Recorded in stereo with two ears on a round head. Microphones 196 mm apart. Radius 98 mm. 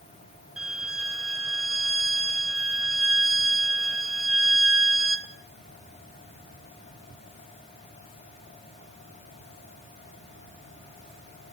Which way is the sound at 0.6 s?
5° right (ahead or behind).